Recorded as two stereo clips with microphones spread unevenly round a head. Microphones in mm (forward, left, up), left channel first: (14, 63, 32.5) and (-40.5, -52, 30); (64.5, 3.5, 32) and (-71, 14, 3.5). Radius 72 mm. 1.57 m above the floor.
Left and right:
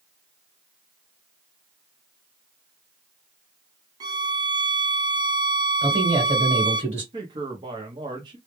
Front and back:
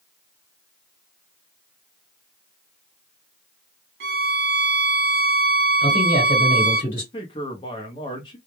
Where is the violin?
175° right, 0.6 m.